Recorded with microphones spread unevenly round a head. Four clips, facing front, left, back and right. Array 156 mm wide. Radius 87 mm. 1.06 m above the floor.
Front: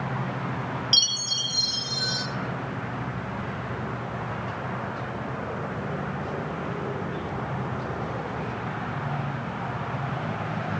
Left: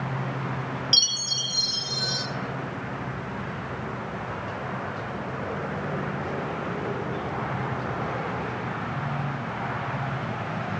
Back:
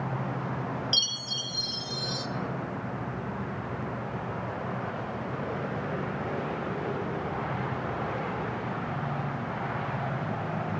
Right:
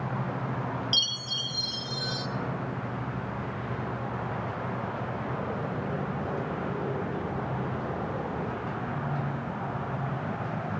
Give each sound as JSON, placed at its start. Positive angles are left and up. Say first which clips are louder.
{"t": 0.9, "sound": "a chime", "louder": "left 1 dB, front 2 dB", "azimuth_deg": 15, "distance_m": 0.5}